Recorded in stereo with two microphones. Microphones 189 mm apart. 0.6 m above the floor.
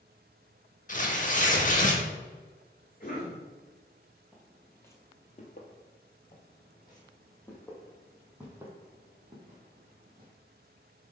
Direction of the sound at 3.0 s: 45° left (ahead or behind).